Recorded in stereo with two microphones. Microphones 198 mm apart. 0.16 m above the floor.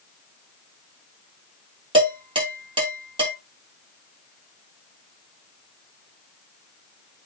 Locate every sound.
1.9 s dishes clattering: 25° right (ahead or behind), 1.7 m